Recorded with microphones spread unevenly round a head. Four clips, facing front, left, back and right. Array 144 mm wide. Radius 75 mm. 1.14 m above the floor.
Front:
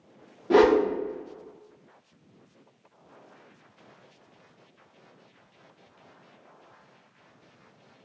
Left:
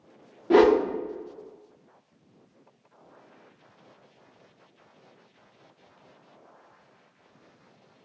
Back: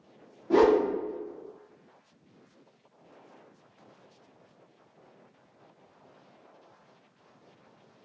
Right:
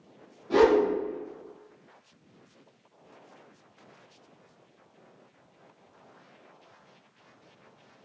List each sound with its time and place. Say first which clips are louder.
0.5 s a whoosh: left 3 dB, front 2 dB; 45° left, 0.5 m